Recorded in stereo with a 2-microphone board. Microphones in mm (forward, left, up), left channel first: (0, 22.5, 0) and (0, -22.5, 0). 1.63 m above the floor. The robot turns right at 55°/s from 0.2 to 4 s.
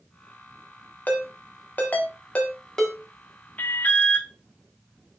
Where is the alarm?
40° left (ahead or behind), 0.5 m; by 4.3 s 30° left (ahead or behind), 0.5 m.